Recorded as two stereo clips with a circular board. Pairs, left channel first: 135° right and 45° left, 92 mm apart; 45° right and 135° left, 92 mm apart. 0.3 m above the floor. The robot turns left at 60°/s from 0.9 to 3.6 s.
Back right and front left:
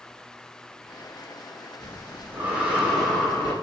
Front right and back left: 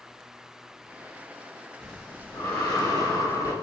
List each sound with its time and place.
1.8 s breathing: 30° left, 0.8 m; by 3.5 s 70° right, 0.8 m